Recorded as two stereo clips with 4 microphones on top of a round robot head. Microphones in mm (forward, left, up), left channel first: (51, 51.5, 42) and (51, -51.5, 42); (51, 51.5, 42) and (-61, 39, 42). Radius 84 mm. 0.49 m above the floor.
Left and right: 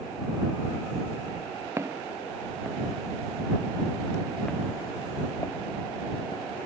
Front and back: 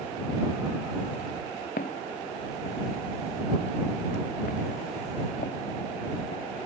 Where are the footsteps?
25° right; by 6.4 s 40° left.